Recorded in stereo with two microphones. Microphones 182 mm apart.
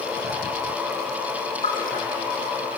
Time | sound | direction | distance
1.6 | a splash | 50° left (ahead or behind) | 4.5 m